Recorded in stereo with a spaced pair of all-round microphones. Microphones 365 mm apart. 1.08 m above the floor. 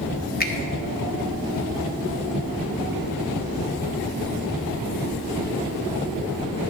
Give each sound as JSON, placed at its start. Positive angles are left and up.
{"t": 0.4, "sound": "a finger snap", "side_deg": 25, "distance_m": 0.9}